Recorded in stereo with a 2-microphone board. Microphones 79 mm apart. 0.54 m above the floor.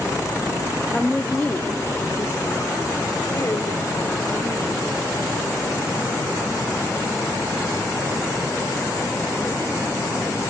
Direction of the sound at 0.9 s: 5° left (ahead or behind).